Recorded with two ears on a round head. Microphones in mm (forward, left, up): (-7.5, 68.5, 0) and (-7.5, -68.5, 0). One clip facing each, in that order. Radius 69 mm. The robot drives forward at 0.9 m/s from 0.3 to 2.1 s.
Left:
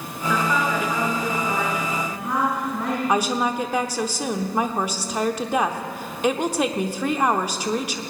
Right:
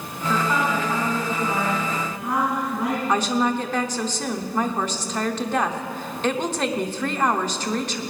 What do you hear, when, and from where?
0.3 s a woman speaking: 5° right (ahead or behind), 2.5 m
3.1 s a woman speaking: 10° left (ahead or behind), 0.8 m